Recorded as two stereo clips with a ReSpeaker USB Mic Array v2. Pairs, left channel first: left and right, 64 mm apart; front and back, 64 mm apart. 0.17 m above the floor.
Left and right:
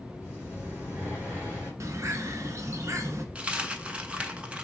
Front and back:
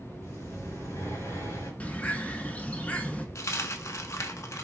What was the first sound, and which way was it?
Breathing, 35° right.